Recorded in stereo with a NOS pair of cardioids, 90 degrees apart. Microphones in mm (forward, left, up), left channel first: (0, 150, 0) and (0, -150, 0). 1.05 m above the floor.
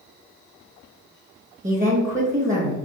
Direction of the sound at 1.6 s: 25° right.